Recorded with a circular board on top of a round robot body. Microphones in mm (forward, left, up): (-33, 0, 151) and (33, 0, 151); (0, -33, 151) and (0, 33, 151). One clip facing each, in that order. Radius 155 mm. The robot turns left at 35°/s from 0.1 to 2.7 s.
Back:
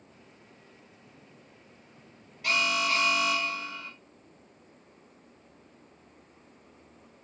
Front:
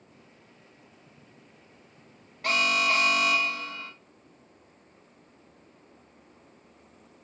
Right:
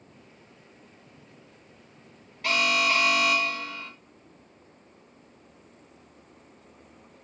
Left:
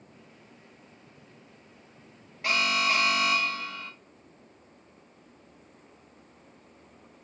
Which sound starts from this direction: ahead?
An alarm, at 2.4 s.